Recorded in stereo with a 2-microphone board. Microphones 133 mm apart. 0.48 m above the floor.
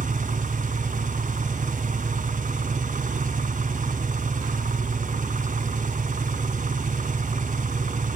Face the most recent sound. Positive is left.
turn(degrees=-85)